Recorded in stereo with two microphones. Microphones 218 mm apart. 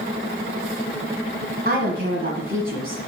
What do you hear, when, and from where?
1.6 s a woman speaking: 45° right (ahead or behind), 1.8 m